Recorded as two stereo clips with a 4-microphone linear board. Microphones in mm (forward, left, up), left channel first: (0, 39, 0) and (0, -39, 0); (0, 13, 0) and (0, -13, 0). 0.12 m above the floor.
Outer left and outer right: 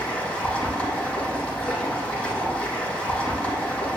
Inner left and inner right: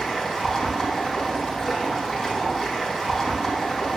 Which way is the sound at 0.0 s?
15° left (ahead or behind).